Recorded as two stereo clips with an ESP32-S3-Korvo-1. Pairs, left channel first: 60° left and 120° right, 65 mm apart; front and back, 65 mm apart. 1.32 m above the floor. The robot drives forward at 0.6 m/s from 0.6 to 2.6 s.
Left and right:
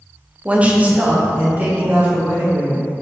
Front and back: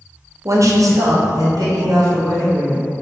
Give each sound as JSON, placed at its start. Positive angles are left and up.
{"t": 0.5, "sound": "a woman speaking", "azimuth_deg": 175, "distance_m": 0.6}